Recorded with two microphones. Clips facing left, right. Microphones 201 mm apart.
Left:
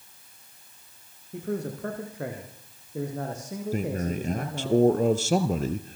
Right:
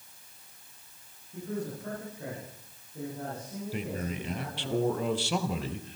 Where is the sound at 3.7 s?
45° left (ahead or behind), 2 m.